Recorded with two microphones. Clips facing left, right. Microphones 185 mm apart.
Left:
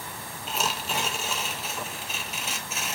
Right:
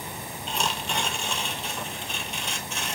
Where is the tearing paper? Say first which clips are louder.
Even; 5° left (ahead or behind), 0.8 m.